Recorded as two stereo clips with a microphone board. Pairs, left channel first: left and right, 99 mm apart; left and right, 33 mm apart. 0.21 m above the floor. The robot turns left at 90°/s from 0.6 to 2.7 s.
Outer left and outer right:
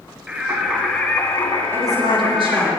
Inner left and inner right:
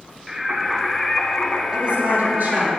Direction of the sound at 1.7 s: 25° right.